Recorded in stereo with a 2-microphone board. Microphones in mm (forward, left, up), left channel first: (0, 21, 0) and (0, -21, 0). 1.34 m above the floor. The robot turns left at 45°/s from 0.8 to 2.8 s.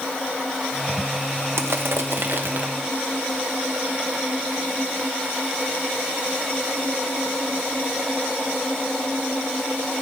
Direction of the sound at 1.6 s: 85° right.